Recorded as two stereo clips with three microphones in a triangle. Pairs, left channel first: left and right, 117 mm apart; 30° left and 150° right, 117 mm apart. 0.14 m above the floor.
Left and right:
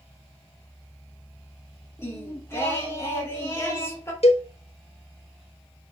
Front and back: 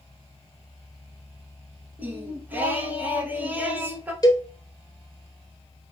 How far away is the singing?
About 1.4 m.